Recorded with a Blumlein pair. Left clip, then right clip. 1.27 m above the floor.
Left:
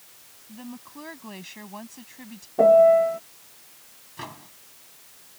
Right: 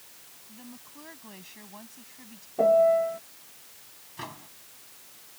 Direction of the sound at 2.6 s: 15° left.